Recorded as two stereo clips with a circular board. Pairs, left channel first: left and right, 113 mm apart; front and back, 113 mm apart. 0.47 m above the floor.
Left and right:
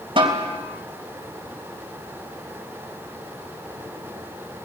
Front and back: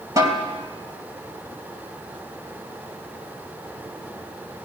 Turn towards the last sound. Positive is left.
turn(degrees=-120)